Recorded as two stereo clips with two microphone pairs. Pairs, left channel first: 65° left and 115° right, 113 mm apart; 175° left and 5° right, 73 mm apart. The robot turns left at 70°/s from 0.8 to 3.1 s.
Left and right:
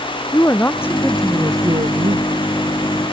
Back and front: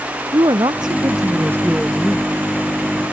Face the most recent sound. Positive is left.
turn(degrees=-165)